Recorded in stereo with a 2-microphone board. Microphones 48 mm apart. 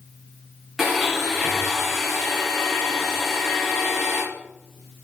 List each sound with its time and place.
0.8 s a blender: 5° right (ahead or behind), 5 m